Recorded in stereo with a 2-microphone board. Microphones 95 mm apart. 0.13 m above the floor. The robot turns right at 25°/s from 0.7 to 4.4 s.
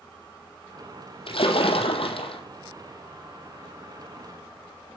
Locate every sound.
1.3 s a splash: 70° left (ahead or behind), 1.5 m